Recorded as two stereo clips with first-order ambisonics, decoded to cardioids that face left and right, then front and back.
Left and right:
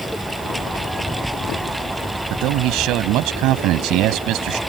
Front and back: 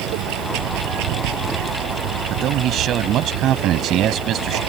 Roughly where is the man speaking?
Behind right.